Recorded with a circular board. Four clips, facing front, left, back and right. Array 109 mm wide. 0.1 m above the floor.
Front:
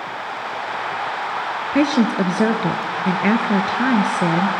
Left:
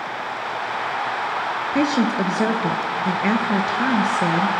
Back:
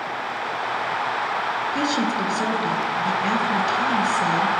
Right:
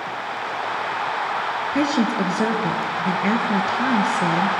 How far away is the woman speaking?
About 1.9 m.